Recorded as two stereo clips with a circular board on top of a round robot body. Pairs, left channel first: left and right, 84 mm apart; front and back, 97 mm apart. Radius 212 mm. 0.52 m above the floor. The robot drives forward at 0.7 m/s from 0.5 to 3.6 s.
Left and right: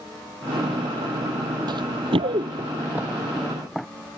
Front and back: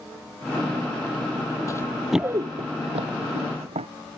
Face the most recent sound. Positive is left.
turn(degrees=180)